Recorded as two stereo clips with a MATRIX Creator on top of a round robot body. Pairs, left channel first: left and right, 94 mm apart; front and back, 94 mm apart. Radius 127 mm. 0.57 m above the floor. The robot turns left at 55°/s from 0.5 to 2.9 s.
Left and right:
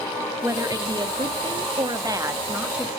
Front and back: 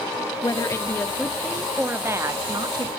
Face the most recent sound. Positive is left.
turn(degrees=-170)